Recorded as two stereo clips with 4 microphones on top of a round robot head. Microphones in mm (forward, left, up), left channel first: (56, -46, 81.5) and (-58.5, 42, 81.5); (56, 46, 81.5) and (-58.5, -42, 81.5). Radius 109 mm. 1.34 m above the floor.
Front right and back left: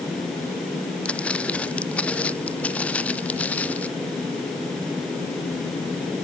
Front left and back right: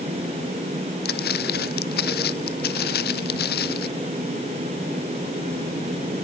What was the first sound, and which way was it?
Footsteps, 45° left.